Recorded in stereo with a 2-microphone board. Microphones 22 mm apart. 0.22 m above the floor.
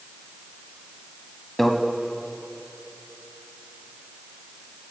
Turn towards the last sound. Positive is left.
turn(degrees=10)  # may be behind; listen again after turning